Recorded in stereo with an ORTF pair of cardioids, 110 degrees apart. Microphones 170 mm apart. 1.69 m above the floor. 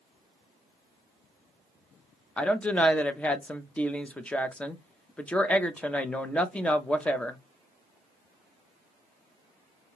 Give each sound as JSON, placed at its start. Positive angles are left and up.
{"t": 2.4, "sound": "a woman speaking", "azimuth_deg": 10, "distance_m": 0.6}